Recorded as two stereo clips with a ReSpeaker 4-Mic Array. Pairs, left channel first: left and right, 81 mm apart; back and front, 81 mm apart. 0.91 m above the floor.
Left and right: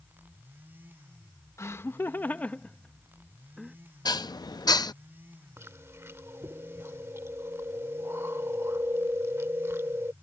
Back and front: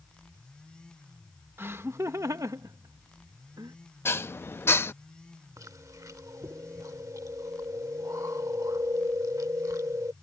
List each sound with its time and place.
1.6 s laughter: 50° left; by 3.8 s 5° right
4.0 s dishes clattering: 120° left
5.6 s chewing: 35° right